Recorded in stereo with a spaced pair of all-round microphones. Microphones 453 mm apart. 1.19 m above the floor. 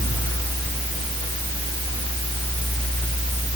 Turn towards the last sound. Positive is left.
turn(degrees=10)  # may be behind; listen again after turning